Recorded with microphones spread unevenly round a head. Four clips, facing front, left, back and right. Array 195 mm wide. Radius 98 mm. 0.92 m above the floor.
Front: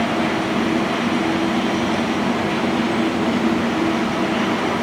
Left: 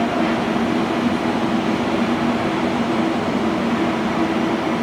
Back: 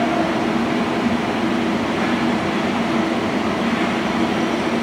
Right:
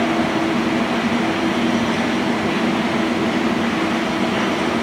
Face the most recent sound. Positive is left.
No sound to turn to.